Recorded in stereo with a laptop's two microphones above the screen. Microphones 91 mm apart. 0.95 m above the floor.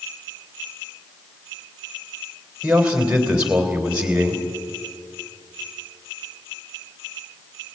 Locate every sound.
2.6 s a man speaking: 10° right (ahead or behind), 3.5 m